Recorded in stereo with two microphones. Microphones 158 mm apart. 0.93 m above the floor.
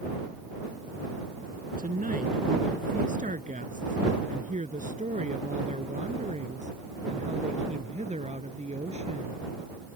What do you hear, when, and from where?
1.8 s a woman speaking: 60° right (ahead or behind); by 9.4 s 40° right (ahead or behind)